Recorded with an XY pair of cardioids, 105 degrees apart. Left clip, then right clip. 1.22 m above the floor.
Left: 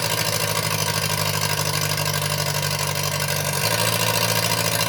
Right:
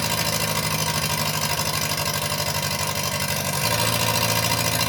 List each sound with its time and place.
0.0 s an engine running: 15° left, 0.8 m